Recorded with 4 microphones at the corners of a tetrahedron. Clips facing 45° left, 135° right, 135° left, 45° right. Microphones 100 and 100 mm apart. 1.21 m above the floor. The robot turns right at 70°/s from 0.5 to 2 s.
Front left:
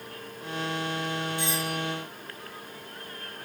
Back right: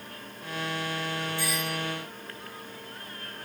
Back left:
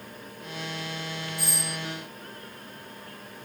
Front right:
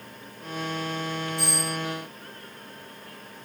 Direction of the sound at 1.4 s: 25° right.